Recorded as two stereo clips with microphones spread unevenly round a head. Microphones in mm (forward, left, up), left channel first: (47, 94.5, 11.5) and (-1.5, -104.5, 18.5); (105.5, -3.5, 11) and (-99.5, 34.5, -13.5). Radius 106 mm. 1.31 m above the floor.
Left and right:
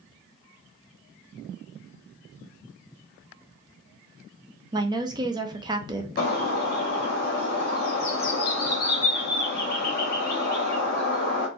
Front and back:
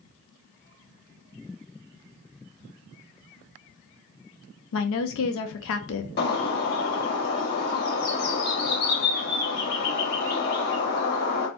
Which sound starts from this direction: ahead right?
A woman speaking, at 4.7 s.